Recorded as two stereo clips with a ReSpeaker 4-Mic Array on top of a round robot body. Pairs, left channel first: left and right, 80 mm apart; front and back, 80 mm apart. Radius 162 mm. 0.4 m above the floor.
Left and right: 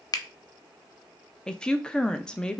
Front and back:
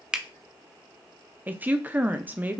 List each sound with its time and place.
0.1 s a finger snap: 100° left, 0.7 m
1.5 s a woman speaking: 155° left, 0.8 m